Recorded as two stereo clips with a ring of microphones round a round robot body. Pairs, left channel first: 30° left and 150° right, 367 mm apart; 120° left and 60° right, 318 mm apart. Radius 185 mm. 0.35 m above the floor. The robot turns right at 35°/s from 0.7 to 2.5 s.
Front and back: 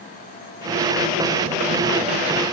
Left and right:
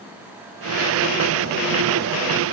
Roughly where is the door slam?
No door slam in this recording.